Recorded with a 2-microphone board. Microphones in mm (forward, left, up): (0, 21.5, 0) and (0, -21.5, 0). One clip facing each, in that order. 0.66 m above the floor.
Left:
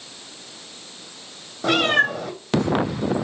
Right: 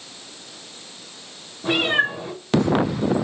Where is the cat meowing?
75° left (ahead or behind), 2.5 m.